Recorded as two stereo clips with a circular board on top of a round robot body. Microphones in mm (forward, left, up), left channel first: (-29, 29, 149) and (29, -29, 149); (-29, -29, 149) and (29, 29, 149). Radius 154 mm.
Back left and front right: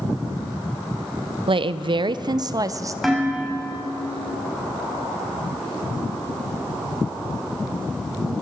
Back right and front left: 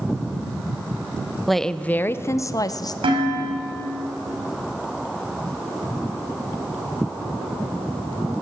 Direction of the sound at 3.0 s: 45° left.